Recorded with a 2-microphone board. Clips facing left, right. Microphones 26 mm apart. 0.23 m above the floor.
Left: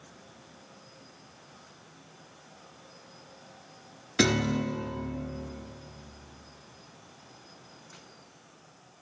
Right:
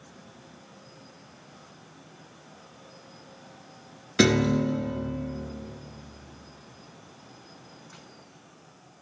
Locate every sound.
4.2 s a piano: 10° right (ahead or behind), 0.7 m